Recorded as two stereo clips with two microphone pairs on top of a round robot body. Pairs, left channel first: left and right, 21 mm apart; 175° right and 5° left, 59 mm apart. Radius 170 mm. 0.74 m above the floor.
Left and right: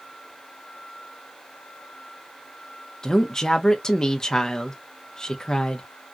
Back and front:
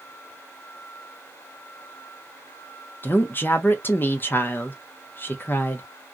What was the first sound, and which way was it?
A woman speaking, 135° left.